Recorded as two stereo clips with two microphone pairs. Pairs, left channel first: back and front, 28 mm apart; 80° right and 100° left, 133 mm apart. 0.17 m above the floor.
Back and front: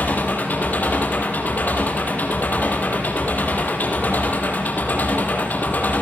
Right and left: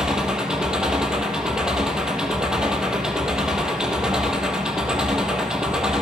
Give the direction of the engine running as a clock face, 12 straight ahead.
6 o'clock.